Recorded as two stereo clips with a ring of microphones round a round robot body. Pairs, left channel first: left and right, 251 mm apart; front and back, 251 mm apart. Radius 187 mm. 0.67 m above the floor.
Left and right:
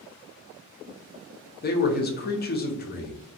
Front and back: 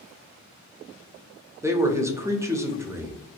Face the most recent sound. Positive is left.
turn(degrees=105)